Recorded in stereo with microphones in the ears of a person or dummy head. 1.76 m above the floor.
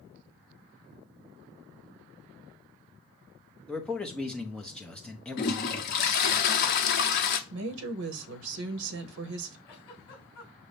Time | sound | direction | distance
3.7 | a man speaking | 5° left (ahead or behind) | 0.7 m
5.4 | a toilet flushing | 50° left (ahead or behind) | 0.6 m
7.5 | a woman speaking | 75° right (ahead or behind) | 0.8 m
9.7 | a giggle | 15° left (ahead or behind) | 1.5 m